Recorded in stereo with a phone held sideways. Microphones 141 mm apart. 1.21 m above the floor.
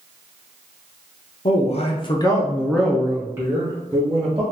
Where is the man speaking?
50° left (ahead or behind), 0.7 m; by 4.4 s 30° right (ahead or behind), 1.2 m.